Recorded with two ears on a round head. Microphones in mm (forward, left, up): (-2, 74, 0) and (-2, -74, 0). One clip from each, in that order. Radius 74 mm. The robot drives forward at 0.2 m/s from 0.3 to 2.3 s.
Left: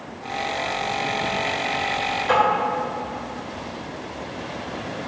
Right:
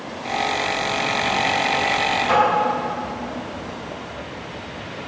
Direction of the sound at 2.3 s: Centre (ahead or behind).